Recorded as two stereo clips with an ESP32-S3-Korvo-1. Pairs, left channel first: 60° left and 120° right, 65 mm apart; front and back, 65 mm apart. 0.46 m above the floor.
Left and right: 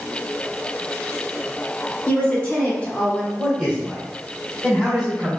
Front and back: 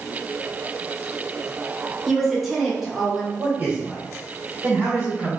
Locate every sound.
2.1 s a woman speaking: 90° left, 0.9 m
3.4 s a man speaking: 170° left, 1.7 m